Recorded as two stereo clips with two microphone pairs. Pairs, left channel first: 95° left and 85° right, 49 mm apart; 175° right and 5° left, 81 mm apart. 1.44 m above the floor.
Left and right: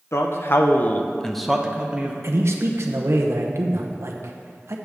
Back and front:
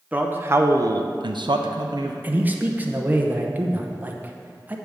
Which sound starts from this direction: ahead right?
A man speaking, at 2.2 s.